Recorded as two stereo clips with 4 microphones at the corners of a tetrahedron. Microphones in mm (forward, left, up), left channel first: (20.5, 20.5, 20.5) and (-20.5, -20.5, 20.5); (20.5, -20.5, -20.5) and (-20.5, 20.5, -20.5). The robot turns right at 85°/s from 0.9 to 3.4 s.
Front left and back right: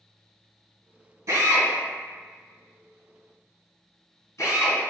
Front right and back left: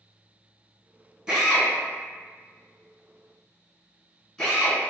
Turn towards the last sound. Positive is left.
turn(degrees=30)